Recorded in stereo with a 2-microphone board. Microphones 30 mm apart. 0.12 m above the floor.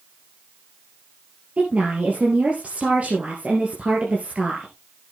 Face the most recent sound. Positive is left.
turn(degrees=-45)  # may be behind; listen again after turning